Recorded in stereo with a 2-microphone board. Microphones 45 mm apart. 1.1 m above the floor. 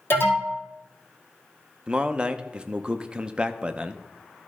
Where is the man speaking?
20° right (ahead or behind), 0.6 m.